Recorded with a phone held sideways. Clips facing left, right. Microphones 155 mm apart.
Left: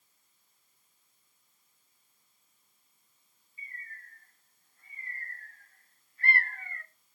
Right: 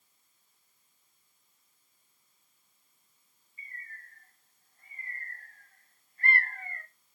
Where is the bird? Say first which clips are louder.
Even; 45° right (ahead or behind), 1.2 m.